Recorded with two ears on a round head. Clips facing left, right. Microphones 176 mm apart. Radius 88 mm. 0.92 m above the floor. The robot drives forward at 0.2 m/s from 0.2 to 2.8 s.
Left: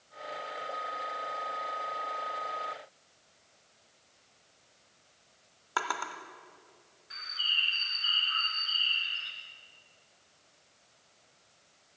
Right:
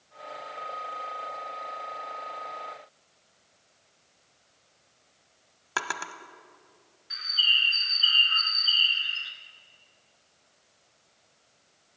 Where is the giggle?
No giggle in this recording.